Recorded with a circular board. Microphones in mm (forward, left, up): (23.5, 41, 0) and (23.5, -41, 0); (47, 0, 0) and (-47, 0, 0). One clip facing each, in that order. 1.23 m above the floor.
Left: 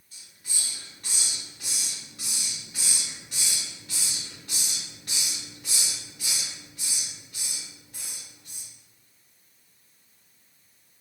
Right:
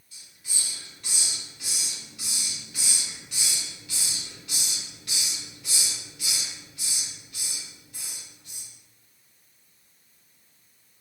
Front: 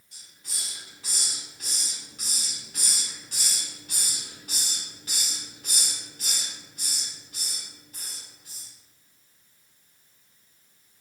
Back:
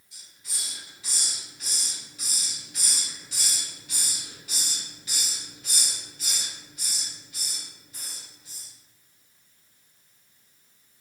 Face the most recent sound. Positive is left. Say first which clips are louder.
# right 1 dB, even
turn(degrees=40)